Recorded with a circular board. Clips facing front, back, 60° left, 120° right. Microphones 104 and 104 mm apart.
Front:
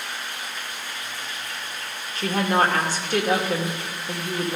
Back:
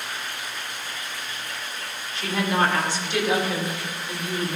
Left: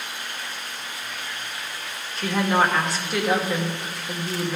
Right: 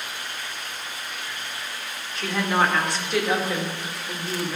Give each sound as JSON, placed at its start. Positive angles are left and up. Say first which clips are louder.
{"t": 2.1, "sound": "a woman speaking", "louder": "front 2 dB, left 2 dB", "azimuth_deg": -30, "distance_m": 1.8}